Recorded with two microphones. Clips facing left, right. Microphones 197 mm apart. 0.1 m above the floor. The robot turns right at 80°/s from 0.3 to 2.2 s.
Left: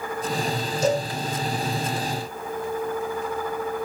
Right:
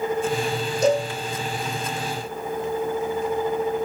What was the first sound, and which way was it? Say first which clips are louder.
A cowbell: right 3 dB; 65° right (ahead or behind).